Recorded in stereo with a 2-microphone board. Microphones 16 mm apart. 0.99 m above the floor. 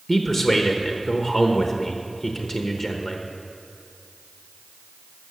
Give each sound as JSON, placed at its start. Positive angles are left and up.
{"t": 0.1, "sound": "a man speaking", "side_deg": 40, "distance_m": 1.0}